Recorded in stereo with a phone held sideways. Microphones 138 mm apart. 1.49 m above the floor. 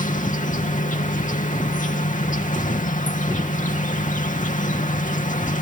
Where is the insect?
65° left (ahead or behind).